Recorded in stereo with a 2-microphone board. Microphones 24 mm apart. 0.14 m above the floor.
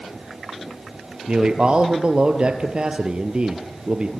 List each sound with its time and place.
1.3 s a man speaking: 35° right (ahead or behind), 3 m